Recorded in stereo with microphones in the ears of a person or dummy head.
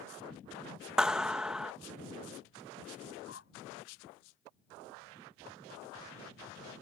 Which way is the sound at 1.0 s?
5° right (ahead or behind).